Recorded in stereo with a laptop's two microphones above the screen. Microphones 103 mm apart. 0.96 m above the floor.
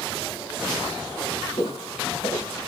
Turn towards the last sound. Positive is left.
turn(degrees=75)  # may be behind; listen again after turning